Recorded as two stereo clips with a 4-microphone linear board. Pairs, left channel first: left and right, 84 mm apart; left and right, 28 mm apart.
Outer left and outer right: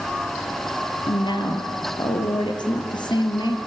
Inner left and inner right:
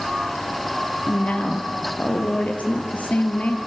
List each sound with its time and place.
1.1 s a woman speaking: 65° left (ahead or behind), 3.5 m